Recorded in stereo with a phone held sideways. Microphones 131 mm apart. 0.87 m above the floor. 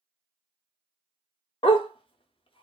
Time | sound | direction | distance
1.6 | a dog barking | 40° left (ahead or behind) | 0.5 m